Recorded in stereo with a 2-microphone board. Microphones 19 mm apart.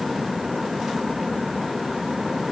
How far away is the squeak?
No squeak in this recording.